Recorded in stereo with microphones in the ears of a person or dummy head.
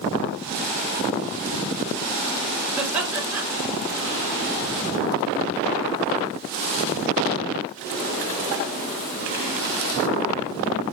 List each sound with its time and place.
2.8 s laughter: centre (ahead or behind), 1.8 m